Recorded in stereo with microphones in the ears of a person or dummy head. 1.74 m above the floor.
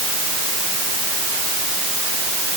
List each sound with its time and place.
Only background noise.